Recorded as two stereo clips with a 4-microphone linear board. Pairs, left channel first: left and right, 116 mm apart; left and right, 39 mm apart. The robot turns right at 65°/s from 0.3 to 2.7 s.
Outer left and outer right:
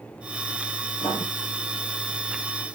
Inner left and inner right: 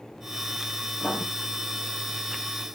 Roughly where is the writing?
Left.